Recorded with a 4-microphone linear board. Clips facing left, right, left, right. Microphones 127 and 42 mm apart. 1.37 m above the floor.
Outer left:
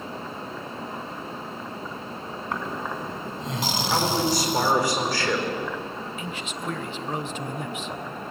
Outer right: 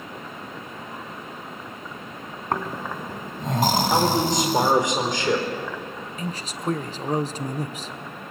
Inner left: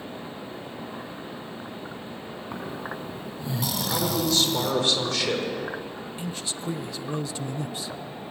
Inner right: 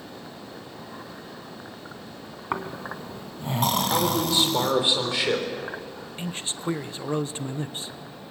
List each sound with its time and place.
2.5 s snoring: 50° right (ahead or behind), 1.9 m
3.9 s a man speaking: 20° right (ahead or behind), 4 m
6.2 s a man speaking: 35° right (ahead or behind), 0.9 m